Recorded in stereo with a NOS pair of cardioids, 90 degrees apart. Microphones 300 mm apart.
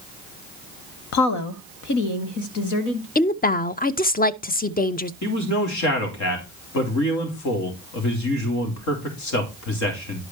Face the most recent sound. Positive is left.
turn(degrees=70)